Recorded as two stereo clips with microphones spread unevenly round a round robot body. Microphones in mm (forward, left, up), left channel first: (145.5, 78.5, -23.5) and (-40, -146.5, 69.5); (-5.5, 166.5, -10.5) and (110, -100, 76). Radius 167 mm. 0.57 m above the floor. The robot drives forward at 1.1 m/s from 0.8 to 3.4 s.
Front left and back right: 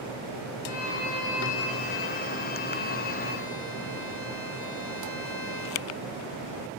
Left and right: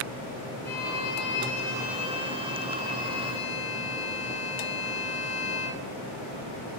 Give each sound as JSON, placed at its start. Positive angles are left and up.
{"t": 0.7, "sound": "a violin", "azimuth_deg": 65, "distance_m": 3.5}